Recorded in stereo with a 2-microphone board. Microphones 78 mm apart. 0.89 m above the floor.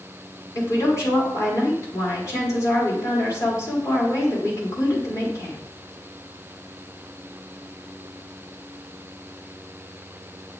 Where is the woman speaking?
40° left (ahead or behind), 2.5 m.